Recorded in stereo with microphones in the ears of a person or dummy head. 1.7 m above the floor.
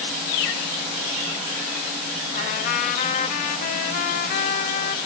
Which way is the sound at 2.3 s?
45° left (ahead or behind).